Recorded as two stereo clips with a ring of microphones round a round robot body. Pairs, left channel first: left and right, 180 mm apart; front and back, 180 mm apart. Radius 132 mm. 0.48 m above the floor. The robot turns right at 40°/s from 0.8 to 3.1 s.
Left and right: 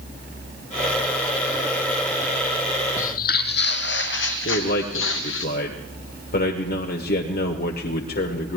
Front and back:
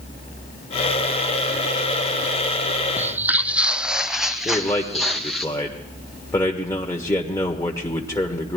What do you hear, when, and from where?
3.0 s footsteps: 105° left, 0.6 m; by 5.5 s 90° left, 2 m
4.5 s a man speaking: 70° left, 1.5 m